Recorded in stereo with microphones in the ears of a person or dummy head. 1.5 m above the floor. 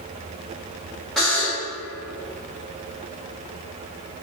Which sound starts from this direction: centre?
A buzzer, at 1.2 s.